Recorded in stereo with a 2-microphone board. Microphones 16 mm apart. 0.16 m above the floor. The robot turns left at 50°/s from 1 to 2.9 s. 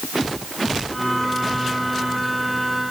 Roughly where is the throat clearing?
I don't hear throat clearing.